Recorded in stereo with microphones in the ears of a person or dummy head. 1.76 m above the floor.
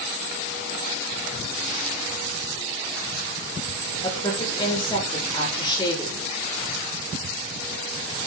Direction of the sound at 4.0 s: 25° left (ahead or behind).